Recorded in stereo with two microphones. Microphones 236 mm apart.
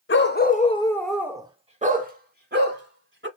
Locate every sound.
0.1 s a dog barking: 55° left (ahead or behind), 0.6 m; by 3.3 s 50° right (ahead or behind), 1.4 m